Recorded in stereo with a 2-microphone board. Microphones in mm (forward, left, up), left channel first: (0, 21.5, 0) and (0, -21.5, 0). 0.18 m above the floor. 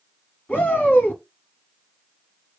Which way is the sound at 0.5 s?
30° left (ahead or behind).